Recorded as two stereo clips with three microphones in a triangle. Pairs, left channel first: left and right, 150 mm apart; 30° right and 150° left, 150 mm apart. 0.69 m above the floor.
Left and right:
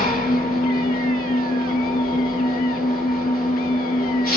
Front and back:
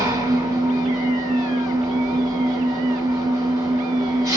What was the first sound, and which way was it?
An engine running, 85° left.